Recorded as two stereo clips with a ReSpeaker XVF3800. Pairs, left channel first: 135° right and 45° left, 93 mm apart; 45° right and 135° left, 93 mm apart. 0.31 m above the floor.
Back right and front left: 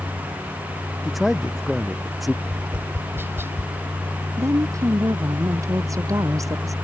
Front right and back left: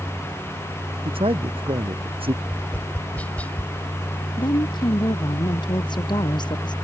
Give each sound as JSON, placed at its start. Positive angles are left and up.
{"t": 1.1, "sound": "a man speaking", "azimuth_deg": 135}
{"t": 2.4, "sound": "tapping", "azimuth_deg": 10}
{"t": 4.4, "sound": "a woman speaking", "azimuth_deg": -10}